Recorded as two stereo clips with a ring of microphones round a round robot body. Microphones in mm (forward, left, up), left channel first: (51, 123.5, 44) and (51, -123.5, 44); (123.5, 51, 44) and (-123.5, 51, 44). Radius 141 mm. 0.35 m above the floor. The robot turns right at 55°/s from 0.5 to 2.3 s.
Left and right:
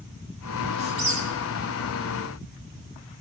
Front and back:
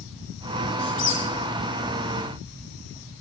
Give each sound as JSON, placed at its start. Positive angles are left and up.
{"t": 0.8, "sound": "a squeak", "azimuth_deg": -75, "distance_m": 4.0}